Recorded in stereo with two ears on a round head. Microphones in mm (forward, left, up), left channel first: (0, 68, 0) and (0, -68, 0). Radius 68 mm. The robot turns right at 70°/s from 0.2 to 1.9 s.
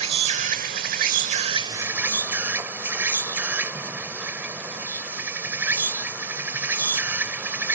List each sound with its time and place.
0.0 s an insect: 135° right; by 7.8 s 15° right